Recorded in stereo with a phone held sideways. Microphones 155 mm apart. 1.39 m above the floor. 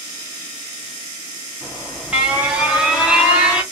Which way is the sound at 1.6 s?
10° right (ahead or behind).